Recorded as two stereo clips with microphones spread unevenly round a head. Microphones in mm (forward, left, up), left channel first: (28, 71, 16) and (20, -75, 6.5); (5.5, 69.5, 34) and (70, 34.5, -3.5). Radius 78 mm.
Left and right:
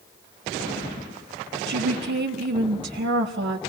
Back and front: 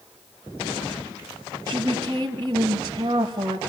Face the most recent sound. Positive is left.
turn(degrees=-90)